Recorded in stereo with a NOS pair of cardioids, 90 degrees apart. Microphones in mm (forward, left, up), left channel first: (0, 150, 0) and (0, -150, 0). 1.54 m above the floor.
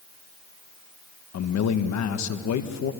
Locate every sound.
1.3 s a man speaking: 65° left, 1.7 m